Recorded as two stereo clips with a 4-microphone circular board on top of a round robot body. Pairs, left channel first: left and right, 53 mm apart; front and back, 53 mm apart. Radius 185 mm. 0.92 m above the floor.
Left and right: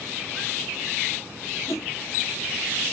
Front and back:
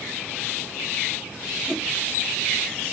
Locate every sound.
1.7 s a whoosh: 100° left, 1.1 m